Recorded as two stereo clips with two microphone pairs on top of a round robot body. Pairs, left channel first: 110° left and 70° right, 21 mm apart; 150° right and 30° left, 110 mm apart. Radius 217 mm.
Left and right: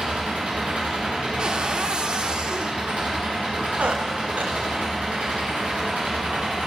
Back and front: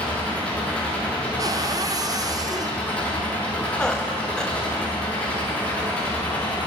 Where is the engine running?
70° right, 9.5 m.